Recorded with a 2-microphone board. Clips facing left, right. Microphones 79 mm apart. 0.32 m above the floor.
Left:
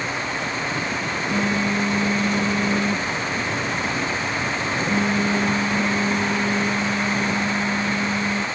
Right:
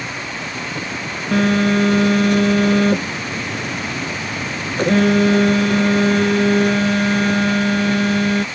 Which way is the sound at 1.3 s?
70° right (ahead or behind).